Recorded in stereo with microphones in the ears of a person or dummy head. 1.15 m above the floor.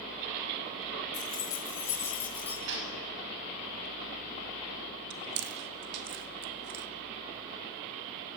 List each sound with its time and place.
1.1 s keys jangling: 20° left (ahead or behind), 4.5 m; by 2.6 s 5° left (ahead or behind), 6.5 m
2.7 s a gunshot: 65° right (ahead or behind), 7 m
5.1 s chewing: 45° right (ahead or behind), 1.0 m